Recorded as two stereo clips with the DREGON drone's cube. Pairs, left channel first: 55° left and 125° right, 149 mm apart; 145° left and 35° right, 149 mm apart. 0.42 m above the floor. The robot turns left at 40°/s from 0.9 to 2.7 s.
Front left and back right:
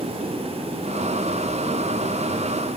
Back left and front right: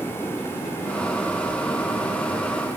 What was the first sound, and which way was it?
Only background noise.